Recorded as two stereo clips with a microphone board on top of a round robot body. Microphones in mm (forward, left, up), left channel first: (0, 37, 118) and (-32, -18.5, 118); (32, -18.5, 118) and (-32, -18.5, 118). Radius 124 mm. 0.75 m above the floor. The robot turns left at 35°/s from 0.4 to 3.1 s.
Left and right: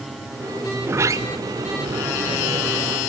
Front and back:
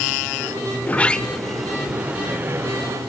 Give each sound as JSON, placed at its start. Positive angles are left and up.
{"t": 0.8, "sound": "a sliding door", "azimuth_deg": -60, "distance_m": 0.7}